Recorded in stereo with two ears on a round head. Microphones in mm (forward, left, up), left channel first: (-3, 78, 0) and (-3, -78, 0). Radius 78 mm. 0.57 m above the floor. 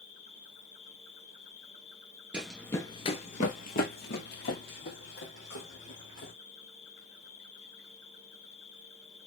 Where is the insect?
70° left (ahead or behind), 1.2 m.